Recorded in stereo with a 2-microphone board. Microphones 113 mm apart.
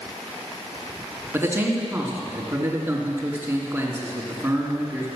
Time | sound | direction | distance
1.3 | a man speaking | 20° right (ahead or behind) | 3 m